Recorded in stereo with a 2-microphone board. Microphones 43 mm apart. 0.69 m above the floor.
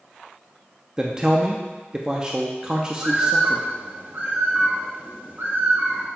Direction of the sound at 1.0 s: 20° right (ahead or behind).